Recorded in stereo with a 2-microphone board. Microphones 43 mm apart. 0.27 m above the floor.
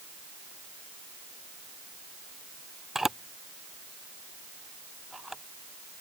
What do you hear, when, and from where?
3.0 s a camera shutter: 5° right (ahead or behind)